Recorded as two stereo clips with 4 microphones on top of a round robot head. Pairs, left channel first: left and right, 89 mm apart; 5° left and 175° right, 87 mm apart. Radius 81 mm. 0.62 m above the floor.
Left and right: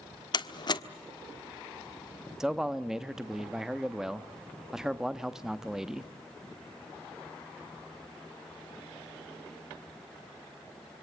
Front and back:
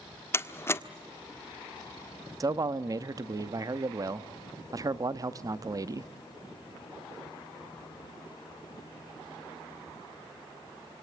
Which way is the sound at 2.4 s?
170° right.